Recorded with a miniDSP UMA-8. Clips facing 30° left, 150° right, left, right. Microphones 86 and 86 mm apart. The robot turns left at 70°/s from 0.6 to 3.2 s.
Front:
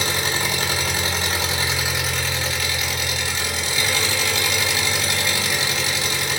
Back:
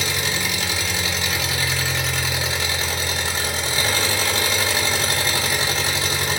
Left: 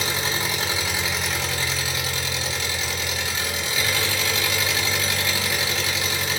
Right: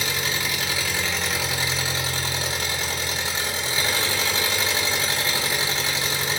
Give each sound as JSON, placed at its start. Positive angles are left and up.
{"t": 0.0, "sound": "an engine running", "azimuth_deg": 45, "distance_m": 0.8}